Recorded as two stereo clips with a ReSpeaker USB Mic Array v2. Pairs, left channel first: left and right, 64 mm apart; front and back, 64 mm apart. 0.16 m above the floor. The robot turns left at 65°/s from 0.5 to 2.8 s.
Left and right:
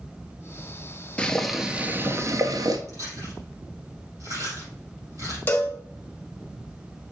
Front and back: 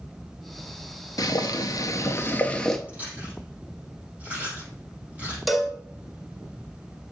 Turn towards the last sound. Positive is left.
turn(degrees=90)